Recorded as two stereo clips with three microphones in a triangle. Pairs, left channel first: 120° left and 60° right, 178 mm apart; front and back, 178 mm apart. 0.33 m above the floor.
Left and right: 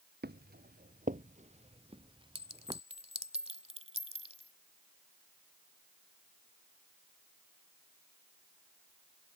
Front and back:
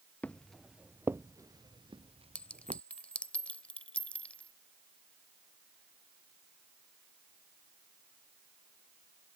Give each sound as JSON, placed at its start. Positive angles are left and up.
{"t": 0.2, "sound": "footsteps", "azimuth_deg": -80}
{"t": 2.4, "sound": "a clink", "azimuth_deg": -80}